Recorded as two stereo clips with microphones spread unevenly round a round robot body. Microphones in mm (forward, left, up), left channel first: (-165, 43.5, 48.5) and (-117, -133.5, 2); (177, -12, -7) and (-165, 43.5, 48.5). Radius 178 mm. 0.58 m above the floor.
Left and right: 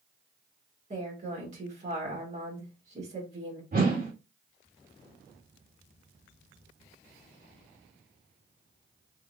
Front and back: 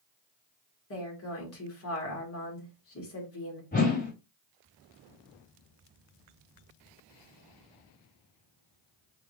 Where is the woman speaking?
45° right, 1.8 m.